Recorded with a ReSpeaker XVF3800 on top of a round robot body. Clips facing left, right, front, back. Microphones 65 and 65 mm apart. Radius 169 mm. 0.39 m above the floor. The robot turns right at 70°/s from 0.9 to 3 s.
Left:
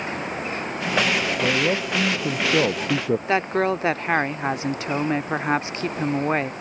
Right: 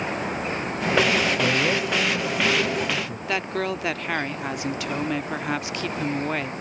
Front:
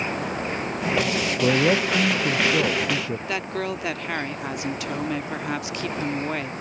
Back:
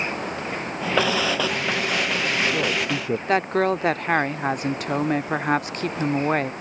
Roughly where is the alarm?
I don't hear an alarm.